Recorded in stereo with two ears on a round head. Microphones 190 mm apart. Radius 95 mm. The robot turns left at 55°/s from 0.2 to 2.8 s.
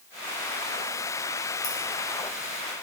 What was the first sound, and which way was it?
Keys jangling, 40° left (ahead or behind).